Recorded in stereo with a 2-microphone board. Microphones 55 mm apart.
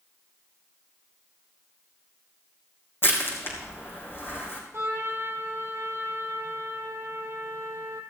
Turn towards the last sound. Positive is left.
turn(degrees=-50)  # may be behind; listen again after turning